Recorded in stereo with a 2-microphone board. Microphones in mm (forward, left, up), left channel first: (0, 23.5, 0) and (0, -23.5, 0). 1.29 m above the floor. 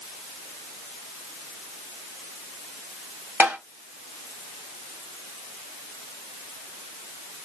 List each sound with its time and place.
3.4 s tapping: 35° right (ahead or behind), 1.9 m